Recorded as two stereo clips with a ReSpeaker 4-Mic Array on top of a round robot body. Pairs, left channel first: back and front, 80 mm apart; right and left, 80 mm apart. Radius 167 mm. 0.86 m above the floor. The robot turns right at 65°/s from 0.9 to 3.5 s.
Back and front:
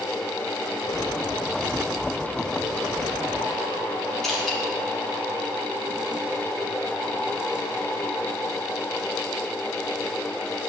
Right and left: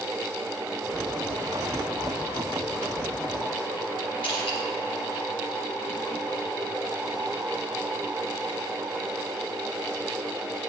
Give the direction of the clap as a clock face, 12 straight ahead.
No clap in this recording.